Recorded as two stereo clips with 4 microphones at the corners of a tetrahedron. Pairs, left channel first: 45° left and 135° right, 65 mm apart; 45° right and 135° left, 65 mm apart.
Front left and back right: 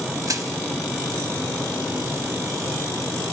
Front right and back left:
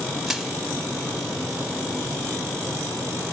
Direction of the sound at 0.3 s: 135° right.